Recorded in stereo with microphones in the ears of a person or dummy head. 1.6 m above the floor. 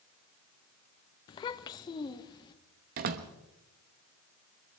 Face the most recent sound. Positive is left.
turn(degrees=-45)  # may be behind; listen again after turning